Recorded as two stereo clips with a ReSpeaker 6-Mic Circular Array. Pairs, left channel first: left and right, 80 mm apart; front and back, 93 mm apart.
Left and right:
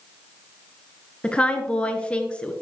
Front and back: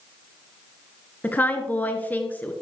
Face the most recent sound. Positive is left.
turn(degrees=35)